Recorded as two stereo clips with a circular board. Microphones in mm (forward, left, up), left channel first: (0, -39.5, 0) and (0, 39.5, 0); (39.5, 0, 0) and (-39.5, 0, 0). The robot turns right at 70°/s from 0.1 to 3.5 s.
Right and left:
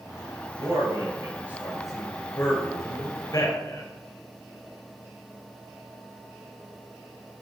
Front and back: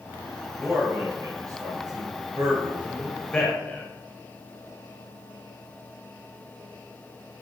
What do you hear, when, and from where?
0.6 s a man speaking: 90° left, 2.5 m; by 3.9 s 65° right, 2.5 m